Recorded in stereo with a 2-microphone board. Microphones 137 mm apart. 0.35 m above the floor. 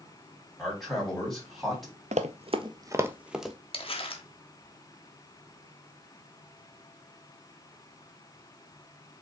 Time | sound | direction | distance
0.6 | a man speaking | centre (ahead or behind) | 3 m
2.1 | running footsteps | 60° right (ahead or behind) | 0.5 m
3.7 | crumpling | 45° left (ahead or behind) | 0.9 m